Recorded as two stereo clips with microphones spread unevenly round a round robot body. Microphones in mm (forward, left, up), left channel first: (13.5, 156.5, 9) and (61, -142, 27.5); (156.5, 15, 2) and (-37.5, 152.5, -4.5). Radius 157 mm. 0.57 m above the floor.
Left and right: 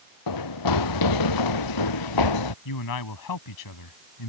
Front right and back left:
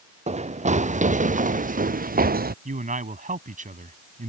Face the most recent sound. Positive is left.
turn(degrees=90)